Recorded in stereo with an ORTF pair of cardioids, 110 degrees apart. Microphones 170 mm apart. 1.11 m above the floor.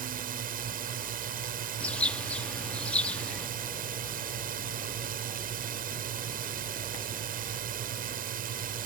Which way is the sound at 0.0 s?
60° right.